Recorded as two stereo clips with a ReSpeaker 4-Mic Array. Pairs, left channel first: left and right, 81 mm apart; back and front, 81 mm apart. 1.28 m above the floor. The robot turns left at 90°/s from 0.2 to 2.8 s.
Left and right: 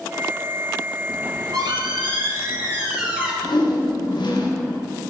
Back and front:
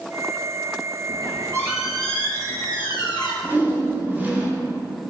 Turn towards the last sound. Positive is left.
turn(degrees=65)